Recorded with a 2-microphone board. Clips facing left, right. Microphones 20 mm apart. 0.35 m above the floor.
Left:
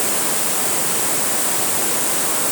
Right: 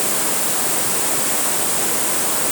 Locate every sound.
Only background noise.